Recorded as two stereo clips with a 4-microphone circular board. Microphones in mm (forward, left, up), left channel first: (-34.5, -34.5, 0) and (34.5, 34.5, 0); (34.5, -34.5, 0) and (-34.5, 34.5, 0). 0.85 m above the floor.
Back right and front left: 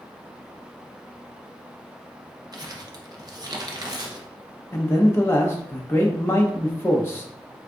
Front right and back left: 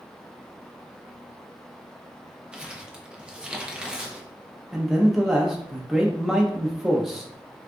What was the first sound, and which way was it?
Crumpling, 60° left.